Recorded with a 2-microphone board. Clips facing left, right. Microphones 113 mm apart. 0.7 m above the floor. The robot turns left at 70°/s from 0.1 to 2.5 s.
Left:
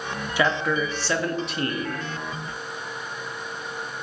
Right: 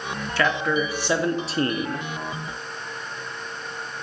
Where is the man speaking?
20° left, 0.7 m; by 2.1 s 95° right, 0.7 m.